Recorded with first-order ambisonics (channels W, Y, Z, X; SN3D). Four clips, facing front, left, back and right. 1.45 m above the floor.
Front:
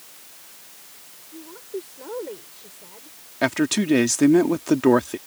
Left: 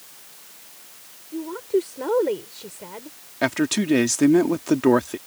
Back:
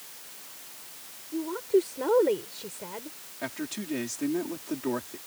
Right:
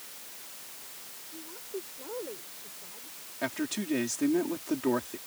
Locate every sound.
1.3 s a woman speaking: 125° left
3.4 s a man speaking: 40° left